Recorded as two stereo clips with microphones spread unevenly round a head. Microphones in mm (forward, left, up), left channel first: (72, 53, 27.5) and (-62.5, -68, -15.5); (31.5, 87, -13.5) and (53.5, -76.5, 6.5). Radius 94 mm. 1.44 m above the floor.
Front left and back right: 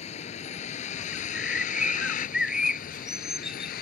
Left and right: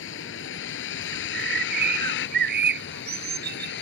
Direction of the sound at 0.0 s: 95° left.